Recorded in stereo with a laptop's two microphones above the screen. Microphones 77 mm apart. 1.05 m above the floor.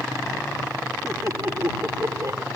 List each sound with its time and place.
1.0 s laughter: 40° right (ahead or behind)